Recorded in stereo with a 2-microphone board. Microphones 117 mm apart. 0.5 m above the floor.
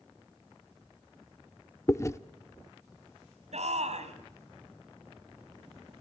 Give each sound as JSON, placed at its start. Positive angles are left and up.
{"t": 1.9, "sound": "chewing", "side_deg": 25, "distance_m": 0.7}
{"t": 3.5, "sound": "a shout", "side_deg": -70, "distance_m": 4.0}